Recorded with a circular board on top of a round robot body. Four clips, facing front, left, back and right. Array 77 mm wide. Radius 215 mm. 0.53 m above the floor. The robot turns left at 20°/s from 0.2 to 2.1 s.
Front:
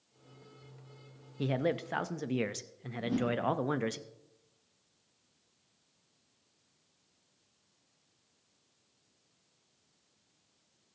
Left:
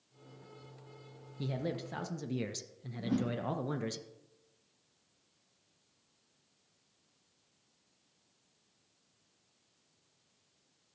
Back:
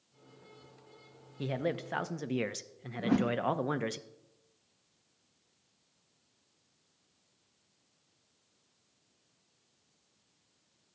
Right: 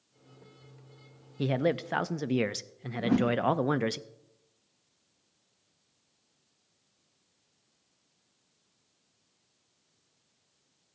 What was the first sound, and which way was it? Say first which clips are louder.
A man speaking: right 10 dB, front 2 dB; 75° right.